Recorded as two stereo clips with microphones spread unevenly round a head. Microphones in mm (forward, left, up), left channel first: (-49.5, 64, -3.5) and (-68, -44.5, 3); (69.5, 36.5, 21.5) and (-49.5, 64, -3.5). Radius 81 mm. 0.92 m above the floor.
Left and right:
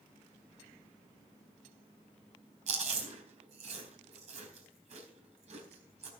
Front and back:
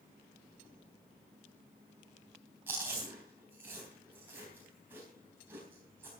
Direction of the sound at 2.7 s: 115° right.